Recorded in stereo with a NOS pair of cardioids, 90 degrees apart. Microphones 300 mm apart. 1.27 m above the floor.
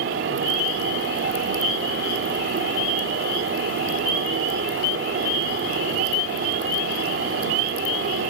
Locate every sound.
0.0 s a fan: 40° right, 3 m